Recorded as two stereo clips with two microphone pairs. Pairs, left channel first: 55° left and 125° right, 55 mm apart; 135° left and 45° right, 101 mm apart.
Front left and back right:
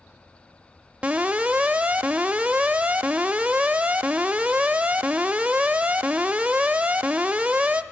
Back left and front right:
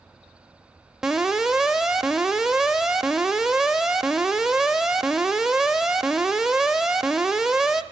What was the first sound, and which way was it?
An alarm, 120° right.